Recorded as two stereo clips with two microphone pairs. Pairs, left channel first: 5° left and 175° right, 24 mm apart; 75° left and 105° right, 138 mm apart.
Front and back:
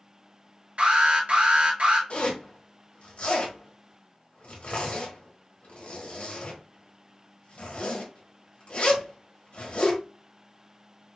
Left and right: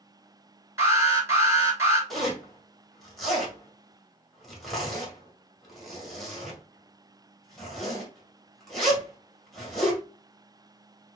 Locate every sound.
0.8 s an alarm: 175° right, 3 m
2.1 s a zipper: 15° right, 1.7 m